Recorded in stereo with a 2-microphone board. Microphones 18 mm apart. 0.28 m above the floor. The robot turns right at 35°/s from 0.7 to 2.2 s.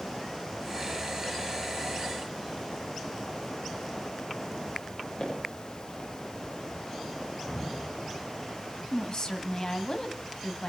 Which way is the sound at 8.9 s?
45° left (ahead or behind).